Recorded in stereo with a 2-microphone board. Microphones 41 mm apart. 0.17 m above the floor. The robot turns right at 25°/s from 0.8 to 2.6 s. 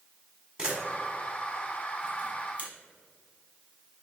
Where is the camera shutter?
20° right (ahead or behind), 1.3 m; by 2.7 s 30° right (ahead or behind), 1.3 m.